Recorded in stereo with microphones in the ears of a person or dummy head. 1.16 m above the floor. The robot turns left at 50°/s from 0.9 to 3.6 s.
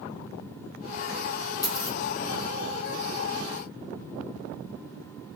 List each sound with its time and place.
1.6 s a dropped coin: 20° left (ahead or behind), 0.6 m; by 2.0 s 30° left (ahead or behind), 0.6 m